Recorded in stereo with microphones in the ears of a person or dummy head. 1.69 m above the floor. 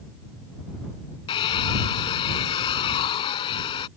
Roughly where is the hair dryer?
Left.